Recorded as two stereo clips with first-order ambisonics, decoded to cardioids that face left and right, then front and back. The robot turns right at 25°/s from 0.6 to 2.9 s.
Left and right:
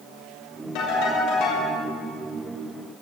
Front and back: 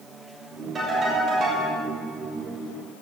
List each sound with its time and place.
0.8 s a ringtone: 105° left, 5 m; by 1.7 s 125° left, 5 m